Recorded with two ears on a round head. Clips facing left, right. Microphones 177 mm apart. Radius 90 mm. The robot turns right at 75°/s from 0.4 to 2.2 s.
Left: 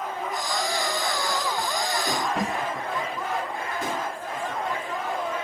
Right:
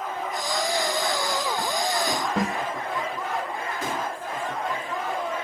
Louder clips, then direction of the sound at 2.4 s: Right 2 dB; 30° right (ahead or behind).